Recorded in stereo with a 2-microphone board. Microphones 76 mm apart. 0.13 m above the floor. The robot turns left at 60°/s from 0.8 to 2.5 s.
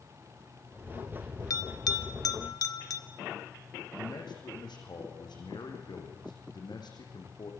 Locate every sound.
1.5 s a bell: 45° left (ahead or behind), 1.4 m; by 3.0 s 50° left (ahead or behind), 1.4 m
4.0 s a man speaking: 75° left (ahead or behind), 6 m